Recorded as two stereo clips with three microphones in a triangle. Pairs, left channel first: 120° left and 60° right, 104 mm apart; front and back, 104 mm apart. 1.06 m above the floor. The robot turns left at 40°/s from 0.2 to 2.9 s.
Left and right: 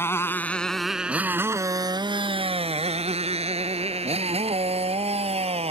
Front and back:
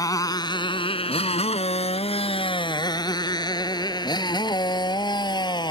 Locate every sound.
0.0 s a motorcycle: 50° left; by 5.7 s 45° right